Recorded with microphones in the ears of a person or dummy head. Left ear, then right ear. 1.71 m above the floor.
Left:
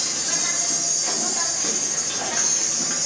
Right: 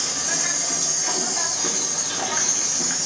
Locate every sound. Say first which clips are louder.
0.0 s an insect: even; centre (ahead or behind), 0.9 m